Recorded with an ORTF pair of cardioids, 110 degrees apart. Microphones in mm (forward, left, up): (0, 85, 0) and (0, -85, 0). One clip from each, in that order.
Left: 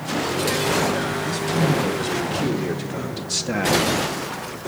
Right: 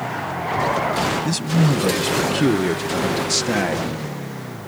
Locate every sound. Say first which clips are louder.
1.2 s a man speaking: even; 50° right, 1.8 m; by 3.9 s 5° right, 0.8 m